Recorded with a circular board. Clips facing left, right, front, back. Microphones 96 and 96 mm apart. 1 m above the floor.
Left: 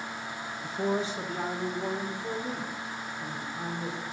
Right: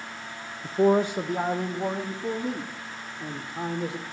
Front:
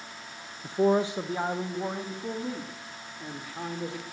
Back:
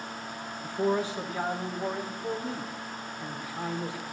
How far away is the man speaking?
About 0.6 m.